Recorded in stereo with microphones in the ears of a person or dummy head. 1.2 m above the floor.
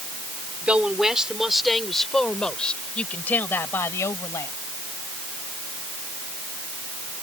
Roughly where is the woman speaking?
Centre.